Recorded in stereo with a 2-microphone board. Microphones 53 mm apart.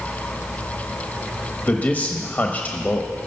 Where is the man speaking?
30° left (ahead or behind), 1.1 m.